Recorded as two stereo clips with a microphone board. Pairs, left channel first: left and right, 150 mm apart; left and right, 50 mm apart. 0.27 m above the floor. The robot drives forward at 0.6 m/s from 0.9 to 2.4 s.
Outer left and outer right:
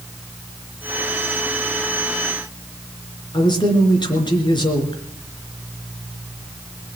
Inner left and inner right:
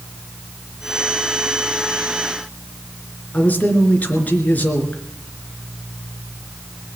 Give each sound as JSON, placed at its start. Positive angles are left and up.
{"t": 3.3, "sound": "a man speaking", "side_deg": 30, "distance_m": 3.5}